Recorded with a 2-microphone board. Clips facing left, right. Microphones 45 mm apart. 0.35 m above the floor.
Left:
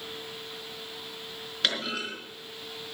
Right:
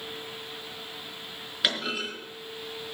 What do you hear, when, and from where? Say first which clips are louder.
1.6 s a clunk: right 1 dB; 10° right (ahead or behind), 4.5 m